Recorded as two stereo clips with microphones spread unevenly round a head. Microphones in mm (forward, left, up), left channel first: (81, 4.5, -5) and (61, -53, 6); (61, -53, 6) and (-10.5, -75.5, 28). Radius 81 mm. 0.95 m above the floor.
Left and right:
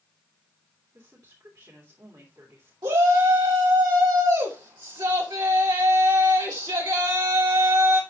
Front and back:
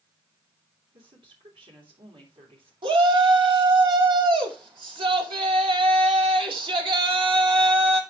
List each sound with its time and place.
0.9 s a woman speaking: 175° right, 3 m
2.8 s a shout: 155° right, 2.5 m